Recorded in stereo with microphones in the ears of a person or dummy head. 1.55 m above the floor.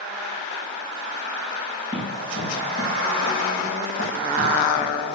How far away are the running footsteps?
About 3 m.